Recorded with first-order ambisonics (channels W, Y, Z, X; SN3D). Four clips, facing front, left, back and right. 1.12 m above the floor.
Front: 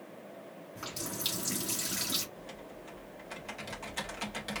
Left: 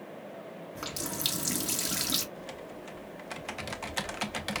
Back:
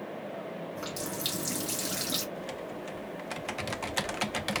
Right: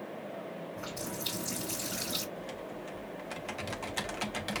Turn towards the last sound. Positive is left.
turn(degrees=160)